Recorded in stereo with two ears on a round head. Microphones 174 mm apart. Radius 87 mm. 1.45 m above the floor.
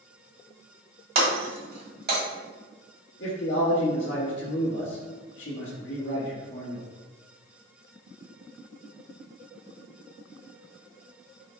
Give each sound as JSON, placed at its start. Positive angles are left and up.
{"t": 1.1, "sound": "breaking glass", "side_deg": -55, "distance_m": 1.8}
{"t": 3.2, "sound": "a man speaking", "side_deg": 65, "distance_m": 1.2}